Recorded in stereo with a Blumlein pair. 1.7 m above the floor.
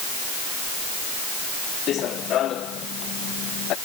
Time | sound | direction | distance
1.9 | running footsteps | 30° left | ?